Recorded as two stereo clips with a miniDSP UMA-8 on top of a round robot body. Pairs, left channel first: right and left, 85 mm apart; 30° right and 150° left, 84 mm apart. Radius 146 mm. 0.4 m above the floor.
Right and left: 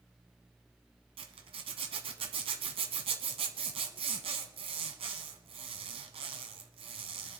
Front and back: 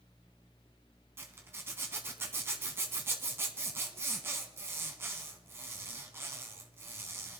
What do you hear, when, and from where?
1.2 s a zipper: 85° left, 0.9 m